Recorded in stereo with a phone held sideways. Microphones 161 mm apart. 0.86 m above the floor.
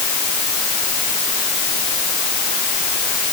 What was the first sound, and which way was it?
Only background noise.